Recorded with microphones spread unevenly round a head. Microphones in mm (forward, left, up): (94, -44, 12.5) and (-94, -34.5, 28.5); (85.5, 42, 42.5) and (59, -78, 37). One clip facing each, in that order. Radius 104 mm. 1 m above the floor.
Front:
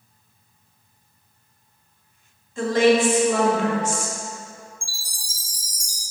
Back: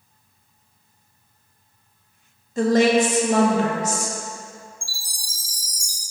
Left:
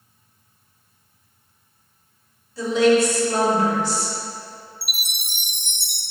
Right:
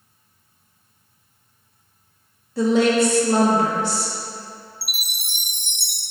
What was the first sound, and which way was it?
A woman speaking, 135° right.